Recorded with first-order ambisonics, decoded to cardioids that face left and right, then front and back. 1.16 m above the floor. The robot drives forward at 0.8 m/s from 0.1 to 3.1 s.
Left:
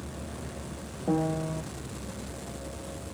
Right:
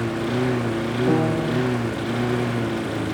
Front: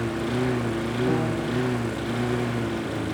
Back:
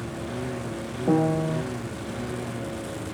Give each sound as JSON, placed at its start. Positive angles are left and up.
{"t": 0.0, "sound": "a lawn mower", "azimuth_deg": -65}
{"t": 1.1, "sound": "a piano", "azimuth_deg": -130}